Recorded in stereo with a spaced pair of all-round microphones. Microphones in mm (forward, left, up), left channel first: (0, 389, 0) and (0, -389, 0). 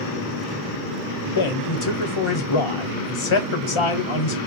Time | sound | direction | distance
1.4 | a man speaking | 40° left (ahead or behind) | 0.7 m